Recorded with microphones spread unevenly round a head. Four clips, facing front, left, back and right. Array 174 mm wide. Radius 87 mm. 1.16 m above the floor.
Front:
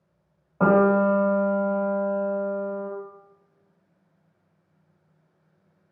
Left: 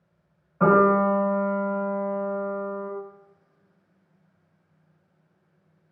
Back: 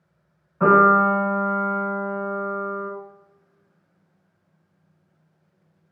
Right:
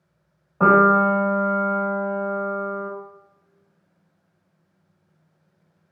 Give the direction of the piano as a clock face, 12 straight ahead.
1 o'clock.